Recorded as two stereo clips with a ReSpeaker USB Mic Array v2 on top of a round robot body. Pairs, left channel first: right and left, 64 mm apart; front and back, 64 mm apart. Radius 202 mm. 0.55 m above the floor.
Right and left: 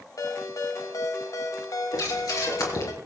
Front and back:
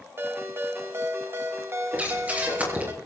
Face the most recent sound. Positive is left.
turn(degrees=-115)